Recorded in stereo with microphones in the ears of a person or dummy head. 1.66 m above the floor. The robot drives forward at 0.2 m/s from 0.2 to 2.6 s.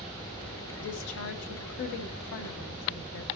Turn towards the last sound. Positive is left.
turn(degrees=65)  # may be behind; listen again after turning